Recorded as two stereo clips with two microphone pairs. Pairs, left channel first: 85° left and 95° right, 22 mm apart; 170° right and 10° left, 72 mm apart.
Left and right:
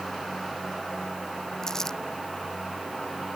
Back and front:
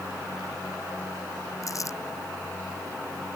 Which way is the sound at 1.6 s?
150° left.